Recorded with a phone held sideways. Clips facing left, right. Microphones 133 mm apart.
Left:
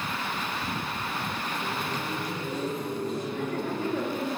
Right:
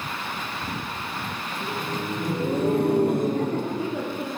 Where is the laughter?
40° right (ahead or behind), 2.5 m; by 4.4 s centre (ahead or behind), 1.9 m.